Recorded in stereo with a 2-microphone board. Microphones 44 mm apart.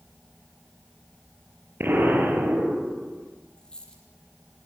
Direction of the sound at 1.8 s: 50° right (ahead or behind).